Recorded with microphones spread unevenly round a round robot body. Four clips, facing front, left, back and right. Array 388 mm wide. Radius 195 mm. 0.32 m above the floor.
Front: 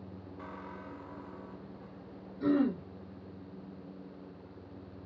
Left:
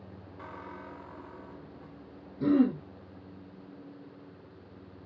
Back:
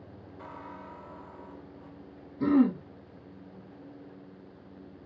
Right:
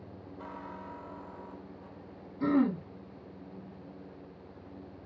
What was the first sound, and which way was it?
A squeak, 85° left.